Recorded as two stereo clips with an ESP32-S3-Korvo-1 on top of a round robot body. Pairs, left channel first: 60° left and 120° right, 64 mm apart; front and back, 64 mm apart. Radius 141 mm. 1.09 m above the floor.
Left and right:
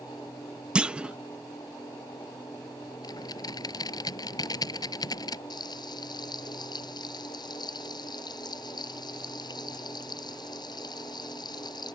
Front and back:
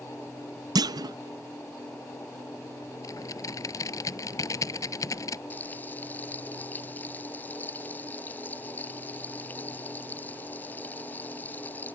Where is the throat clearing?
I don't hear throat clearing.